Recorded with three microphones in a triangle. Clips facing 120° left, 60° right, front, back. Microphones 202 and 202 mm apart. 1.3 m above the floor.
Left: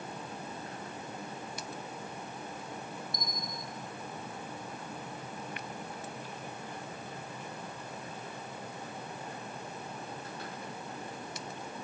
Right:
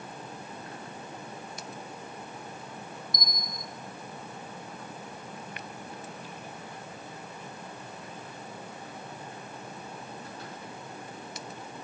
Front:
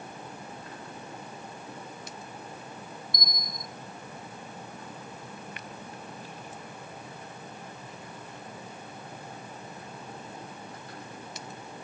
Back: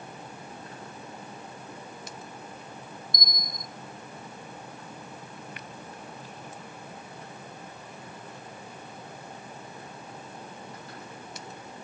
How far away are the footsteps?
I don't hear footsteps.